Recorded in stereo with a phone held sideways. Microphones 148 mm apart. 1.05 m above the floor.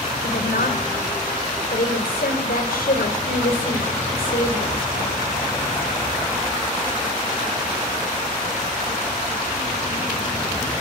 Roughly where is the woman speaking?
Left.